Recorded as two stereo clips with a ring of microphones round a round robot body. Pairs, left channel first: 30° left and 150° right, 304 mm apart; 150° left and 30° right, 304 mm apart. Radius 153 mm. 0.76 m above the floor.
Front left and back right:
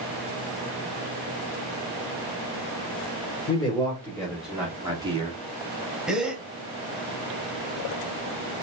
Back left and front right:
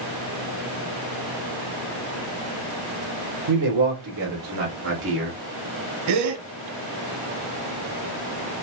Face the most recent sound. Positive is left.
turn(degrees=-65)